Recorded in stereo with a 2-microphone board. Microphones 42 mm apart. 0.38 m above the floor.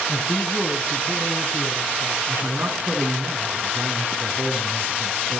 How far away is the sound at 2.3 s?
About 4 m.